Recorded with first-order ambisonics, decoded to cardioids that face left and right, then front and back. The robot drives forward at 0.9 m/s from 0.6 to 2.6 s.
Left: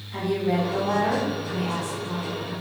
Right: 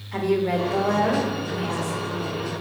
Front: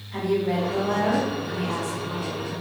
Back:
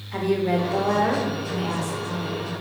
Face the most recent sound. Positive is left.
turn(degrees=-170)